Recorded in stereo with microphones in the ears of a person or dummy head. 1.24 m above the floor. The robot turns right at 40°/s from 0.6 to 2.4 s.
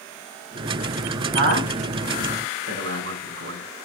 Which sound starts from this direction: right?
A man speaking, at 1.3 s.